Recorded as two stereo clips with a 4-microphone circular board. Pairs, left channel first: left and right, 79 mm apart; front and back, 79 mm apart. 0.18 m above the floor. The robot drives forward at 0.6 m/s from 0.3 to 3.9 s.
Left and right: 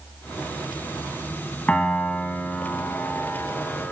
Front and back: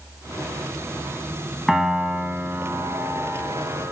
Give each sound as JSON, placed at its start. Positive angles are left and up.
{"t": 1.7, "sound": "a piano", "azimuth_deg": 100, "distance_m": 0.9}